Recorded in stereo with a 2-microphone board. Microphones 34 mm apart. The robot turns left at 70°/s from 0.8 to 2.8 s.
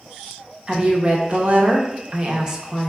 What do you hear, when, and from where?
0.7 s a woman speaking: 25° right, 0.8 m; by 2.9 s 165° right, 0.8 m